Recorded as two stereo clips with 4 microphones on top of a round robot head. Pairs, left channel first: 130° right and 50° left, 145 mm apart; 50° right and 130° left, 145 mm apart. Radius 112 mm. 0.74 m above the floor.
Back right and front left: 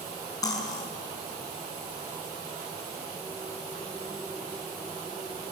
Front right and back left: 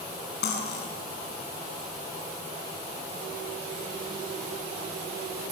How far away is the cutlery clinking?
About 4.5 m.